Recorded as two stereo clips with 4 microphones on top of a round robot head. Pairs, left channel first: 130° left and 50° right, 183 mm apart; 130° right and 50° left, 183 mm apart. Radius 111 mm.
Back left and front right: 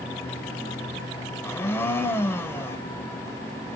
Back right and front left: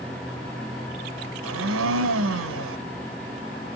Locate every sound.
1.4 s a blender: 50° left, 1.8 m